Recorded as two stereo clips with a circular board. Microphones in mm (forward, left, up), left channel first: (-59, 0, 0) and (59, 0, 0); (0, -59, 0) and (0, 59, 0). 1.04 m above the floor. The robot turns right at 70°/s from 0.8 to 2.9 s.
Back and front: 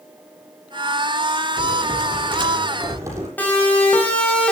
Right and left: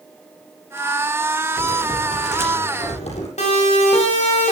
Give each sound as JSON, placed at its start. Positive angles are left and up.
{"t": 1.6, "sound": "typing on a keyboard", "azimuth_deg": -160, "distance_m": 7.0}
{"t": 3.4, "sound": "a siren", "azimuth_deg": -105, "distance_m": 7.5}